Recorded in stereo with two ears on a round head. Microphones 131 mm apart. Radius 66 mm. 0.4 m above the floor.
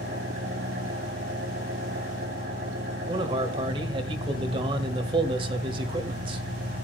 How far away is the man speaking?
About 1.6 m.